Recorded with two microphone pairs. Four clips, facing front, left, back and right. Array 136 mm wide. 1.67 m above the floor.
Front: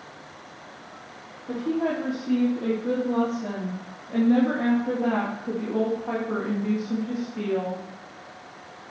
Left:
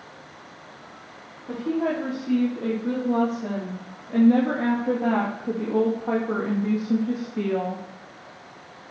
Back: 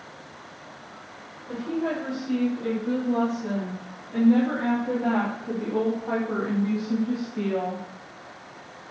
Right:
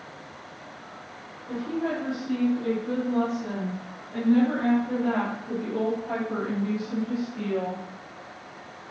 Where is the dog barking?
I don't hear a dog barking.